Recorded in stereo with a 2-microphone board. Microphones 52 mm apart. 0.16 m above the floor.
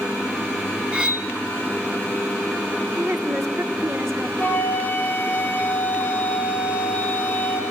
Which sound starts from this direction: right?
A woman speaking, at 3.0 s.